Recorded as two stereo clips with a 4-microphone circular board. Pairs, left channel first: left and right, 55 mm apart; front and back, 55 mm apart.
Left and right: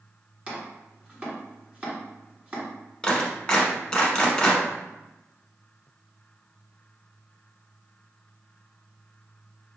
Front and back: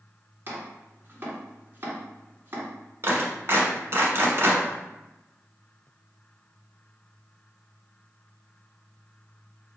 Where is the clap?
165° left, 1.2 m.